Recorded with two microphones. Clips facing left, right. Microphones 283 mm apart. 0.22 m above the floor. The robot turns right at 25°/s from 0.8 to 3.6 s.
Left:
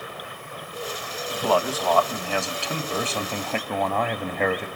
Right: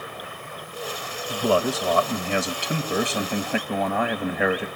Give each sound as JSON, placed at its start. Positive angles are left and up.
{"t": 1.3, "sound": "a man speaking", "azimuth_deg": -75, "distance_m": 1.1}